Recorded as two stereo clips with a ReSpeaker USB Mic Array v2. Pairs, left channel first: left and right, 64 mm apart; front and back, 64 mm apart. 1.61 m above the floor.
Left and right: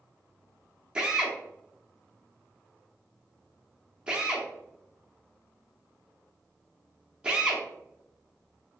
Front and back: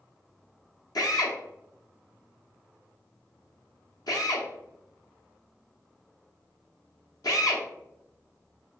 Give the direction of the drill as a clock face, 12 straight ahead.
12 o'clock.